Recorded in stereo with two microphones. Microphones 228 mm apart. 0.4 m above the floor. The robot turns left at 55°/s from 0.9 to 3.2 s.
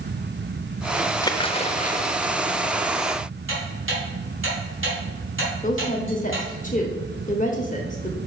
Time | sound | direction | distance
1.2 | a splash | 155° left | 0.5 m
3.5 | ticking | 60° right (ahead or behind) | 3.5 m
5.6 | a woman speaking | 35° left (ahead or behind) | 0.9 m